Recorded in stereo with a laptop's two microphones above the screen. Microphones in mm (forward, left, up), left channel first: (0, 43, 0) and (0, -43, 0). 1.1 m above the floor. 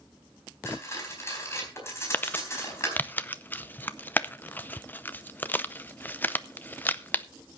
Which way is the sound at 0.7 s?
30° left (ahead or behind).